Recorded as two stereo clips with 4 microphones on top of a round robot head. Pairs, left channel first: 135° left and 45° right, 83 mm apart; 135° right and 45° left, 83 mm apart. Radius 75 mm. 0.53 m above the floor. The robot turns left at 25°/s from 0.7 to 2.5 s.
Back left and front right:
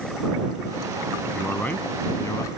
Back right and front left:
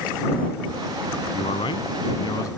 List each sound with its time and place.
1.3 s a man speaking: 150° right; by 2.5 s 175° right